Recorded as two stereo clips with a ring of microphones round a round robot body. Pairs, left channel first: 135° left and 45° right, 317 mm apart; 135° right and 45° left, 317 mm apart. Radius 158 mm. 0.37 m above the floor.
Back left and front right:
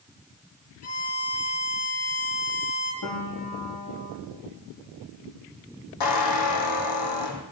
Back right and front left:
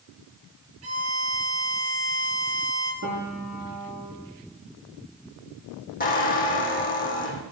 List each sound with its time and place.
0.8 s a violin: 95° left, 4 m
3.0 s a piano: 95° left, 7 m
6.0 s a squeak: 160° left, 3 m